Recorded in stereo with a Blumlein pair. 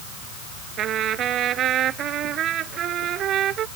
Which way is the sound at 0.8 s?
30° right.